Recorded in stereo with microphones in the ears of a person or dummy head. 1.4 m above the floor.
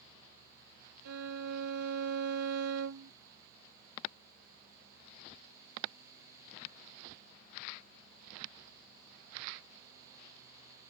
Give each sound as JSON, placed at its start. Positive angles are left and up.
{"t": 1.1, "sound": "a violin", "side_deg": -75}